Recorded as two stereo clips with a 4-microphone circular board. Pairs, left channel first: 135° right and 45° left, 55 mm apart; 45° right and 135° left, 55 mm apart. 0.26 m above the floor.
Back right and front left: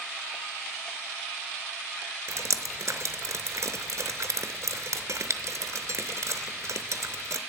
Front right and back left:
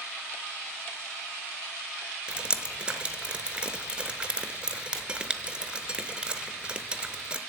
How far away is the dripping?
About 0.7 m.